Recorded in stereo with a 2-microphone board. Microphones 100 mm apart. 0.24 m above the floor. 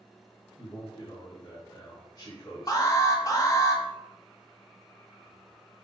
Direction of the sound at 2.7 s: 35° left (ahead or behind).